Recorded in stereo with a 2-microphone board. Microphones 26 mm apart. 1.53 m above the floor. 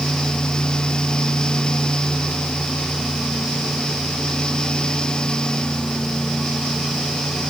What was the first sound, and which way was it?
Only background noise.